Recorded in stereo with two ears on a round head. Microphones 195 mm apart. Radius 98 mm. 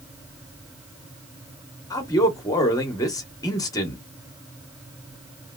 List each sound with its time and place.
1.9 s a man speaking: 15° left (ahead or behind), 0.8 m